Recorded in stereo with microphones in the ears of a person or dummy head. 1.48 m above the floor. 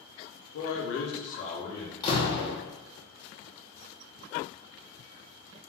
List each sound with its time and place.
0.5 s a man speaking: 65° left (ahead or behind), 0.6 m; by 1.9 s 20° left (ahead or behind), 0.9 m
2.0 s a door slam: 35° left (ahead or behind), 0.7 m